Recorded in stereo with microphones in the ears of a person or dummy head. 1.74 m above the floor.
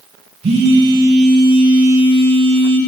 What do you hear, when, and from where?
0.4 s a phone buzzing: 35° right (ahead or behind), 1.2 m